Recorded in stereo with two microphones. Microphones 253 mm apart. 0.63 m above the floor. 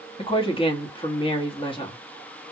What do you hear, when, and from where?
0.2 s a woman speaking: 20° left (ahead or behind), 0.8 m